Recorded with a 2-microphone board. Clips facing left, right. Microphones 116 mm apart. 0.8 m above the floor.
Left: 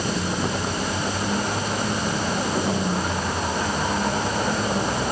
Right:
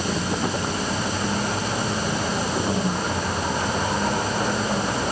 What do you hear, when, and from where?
Only background noise.